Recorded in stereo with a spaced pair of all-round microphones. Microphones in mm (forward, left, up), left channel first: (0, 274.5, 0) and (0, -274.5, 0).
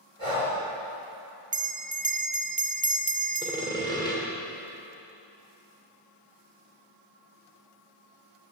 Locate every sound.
0.2 s breathing: 70° right (ahead or behind), 6.5 m
1.5 s a bell: 15° right (ahead or behind), 0.7 m
3.4 s sawing: 5° left (ahead or behind), 3 m